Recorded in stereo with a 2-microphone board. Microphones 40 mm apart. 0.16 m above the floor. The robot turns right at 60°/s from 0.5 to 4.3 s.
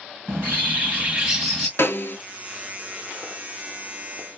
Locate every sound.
0.3 s a bird: 60° right, 1.9 m; by 1.7 s 10° left, 1.9 m
1.8 s a snare drum: 75° left (ahead or behind), 0.6 m; by 2.2 s 55° left (ahead or behind), 0.6 m